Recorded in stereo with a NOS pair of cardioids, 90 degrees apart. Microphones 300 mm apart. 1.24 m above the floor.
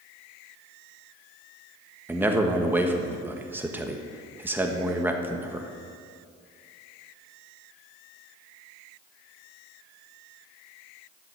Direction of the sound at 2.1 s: 5° right.